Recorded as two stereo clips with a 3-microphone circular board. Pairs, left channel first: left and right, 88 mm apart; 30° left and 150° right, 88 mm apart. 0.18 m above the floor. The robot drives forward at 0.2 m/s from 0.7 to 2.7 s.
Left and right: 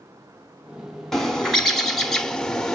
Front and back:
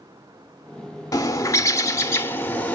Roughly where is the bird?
Ahead.